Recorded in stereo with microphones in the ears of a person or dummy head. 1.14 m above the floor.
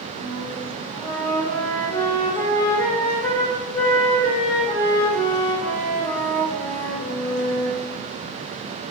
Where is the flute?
5° left (ahead or behind), 0.6 m.